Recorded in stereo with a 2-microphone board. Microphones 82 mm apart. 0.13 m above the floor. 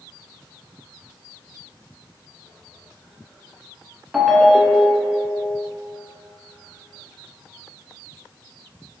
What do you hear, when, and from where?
4.1 s a ringtone: 5° right (ahead or behind), 0.5 m